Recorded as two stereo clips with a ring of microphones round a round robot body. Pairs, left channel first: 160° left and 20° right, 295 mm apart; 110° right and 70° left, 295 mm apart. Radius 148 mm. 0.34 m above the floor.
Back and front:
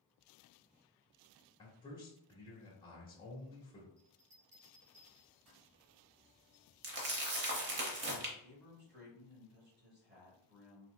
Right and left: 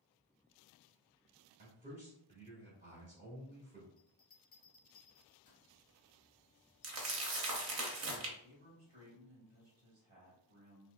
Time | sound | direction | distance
1.6 | a man speaking | 100° left | 1.4 m
4.0 | a bell | 55° right | 1.5 m
6.8 | crumpling | 25° left | 0.8 m
8.4 | a man speaking | 15° left | 1.4 m